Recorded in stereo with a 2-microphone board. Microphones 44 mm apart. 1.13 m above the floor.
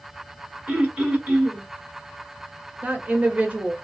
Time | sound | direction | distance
0.7 | throat clearing | 35° right (ahead or behind) | 1.0 m
2.8 | a woman speaking | 35° right (ahead or behind) | 0.9 m